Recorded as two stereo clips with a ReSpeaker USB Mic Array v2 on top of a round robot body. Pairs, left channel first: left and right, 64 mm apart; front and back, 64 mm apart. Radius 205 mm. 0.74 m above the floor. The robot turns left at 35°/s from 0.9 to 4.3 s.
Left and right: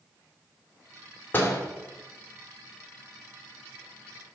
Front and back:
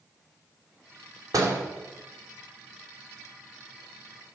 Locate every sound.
1.3 s a door slam: 150° left, 2.5 m; by 1.6 s 140° left, 2.5 m